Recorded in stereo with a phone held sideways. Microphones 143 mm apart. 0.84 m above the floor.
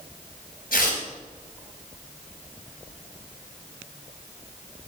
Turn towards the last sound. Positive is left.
turn(degrees=85)